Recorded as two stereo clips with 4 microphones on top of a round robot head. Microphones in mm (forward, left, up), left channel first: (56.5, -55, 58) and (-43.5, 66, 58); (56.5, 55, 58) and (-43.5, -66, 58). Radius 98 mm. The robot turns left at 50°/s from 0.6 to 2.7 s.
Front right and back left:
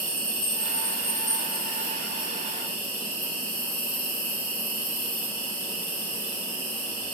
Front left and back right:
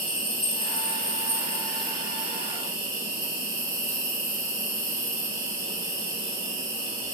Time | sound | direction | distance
0.0 | an insect | 25° left | 1.6 m